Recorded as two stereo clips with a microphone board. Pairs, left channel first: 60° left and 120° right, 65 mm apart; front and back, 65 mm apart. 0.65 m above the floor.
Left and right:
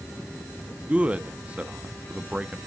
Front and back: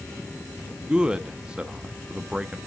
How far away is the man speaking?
About 0.7 m.